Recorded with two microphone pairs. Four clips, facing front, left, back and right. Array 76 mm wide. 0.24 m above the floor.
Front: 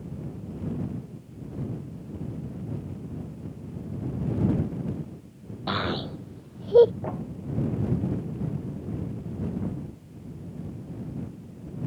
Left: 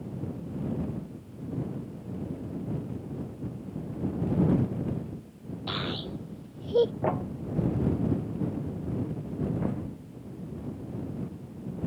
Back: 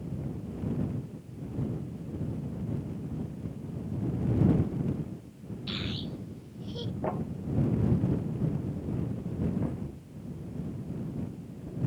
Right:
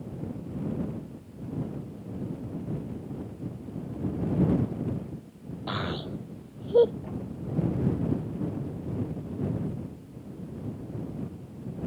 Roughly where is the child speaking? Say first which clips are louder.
Right 2 dB, front 9 dB; ahead.